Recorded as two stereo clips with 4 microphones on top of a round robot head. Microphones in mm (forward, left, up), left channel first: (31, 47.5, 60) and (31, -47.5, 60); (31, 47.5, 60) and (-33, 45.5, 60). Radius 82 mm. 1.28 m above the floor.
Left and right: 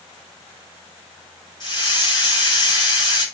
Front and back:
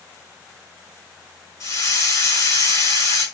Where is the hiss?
45° left, 7 m.